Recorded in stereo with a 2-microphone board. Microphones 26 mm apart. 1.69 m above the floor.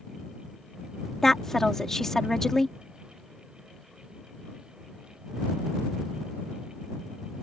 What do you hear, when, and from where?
1.2 s a woman speaking: 10° left (ahead or behind)